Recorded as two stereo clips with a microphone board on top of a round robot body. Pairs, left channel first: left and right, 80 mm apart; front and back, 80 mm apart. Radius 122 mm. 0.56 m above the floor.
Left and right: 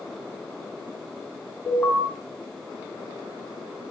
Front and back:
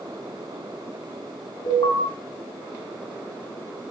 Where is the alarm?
20° left, 5 m.